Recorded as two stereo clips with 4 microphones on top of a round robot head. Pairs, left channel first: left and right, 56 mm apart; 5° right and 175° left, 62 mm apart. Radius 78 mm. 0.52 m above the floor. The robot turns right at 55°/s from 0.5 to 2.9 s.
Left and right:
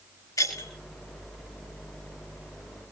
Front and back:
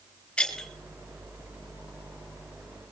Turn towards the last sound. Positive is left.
turn(degrees=-155)